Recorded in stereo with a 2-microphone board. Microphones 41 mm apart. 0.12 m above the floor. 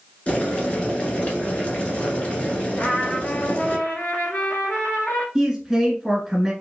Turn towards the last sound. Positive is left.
turn(degrees=-5)  # may be behind; listen again after turning